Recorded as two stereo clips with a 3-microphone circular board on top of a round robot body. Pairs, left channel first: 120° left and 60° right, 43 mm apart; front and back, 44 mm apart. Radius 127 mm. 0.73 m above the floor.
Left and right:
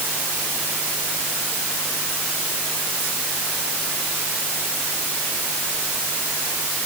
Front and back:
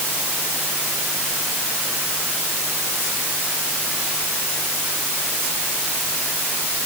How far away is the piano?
No piano in this recording.